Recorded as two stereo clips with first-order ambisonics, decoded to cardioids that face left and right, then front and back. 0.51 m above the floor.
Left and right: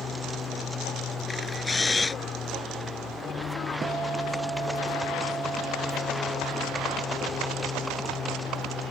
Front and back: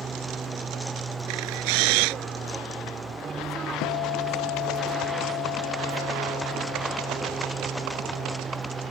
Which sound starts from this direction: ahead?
A guitar, at 3.8 s.